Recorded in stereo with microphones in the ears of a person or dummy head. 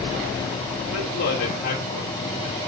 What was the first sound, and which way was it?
A man speaking, 50° left (ahead or behind).